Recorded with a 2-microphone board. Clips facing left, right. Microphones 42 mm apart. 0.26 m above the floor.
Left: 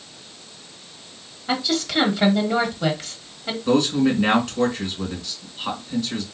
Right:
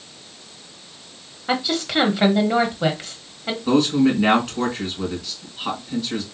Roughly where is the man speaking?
Centre.